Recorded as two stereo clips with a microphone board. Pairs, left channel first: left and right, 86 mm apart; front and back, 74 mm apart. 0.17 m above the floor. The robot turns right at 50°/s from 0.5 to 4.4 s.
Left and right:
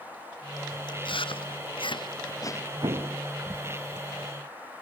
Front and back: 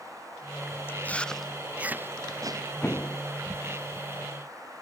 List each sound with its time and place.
0.9 s chewing: 60° left; by 2.7 s 150° left
2.8 s an explosion: 70° right; by 3.2 s 50° right